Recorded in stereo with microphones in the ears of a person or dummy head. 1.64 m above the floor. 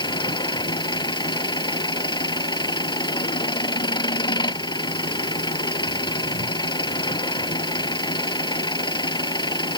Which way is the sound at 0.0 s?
25° left (ahead or behind).